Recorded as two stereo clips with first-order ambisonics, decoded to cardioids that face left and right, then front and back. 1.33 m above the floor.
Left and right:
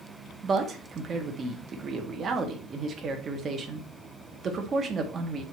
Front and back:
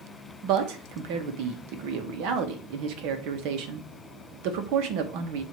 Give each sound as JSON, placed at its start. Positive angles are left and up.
{"t": 0.4, "sound": "a man speaking", "azimuth_deg": -155, "distance_m": 1.3}